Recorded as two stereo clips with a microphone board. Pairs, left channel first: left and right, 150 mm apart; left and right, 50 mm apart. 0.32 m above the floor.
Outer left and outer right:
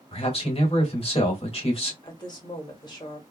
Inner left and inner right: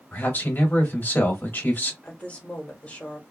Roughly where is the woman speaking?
Left.